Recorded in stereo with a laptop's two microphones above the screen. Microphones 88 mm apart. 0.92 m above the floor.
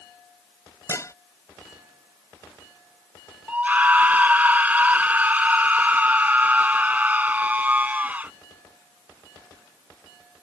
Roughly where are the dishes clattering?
Left.